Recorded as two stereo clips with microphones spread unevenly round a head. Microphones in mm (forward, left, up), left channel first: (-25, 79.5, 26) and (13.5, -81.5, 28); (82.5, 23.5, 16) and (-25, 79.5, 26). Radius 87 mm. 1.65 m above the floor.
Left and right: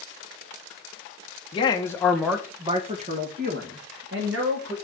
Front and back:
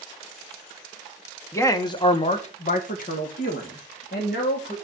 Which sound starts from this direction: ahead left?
A man speaking, at 1.5 s.